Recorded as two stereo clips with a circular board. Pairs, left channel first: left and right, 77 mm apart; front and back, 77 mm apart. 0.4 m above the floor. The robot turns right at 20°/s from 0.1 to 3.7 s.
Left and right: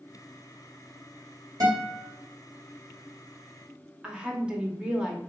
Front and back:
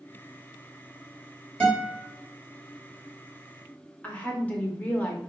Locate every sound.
1.6 s a guitar: 75° right, 2 m; by 2.0 s 65° right, 2 m
4.0 s a woman speaking: 35° right, 0.8 m